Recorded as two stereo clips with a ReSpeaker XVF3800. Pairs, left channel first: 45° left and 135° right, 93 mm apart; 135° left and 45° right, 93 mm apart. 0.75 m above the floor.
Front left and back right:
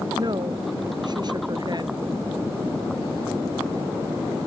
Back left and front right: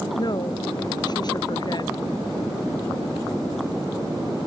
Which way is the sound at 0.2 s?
Straight behind.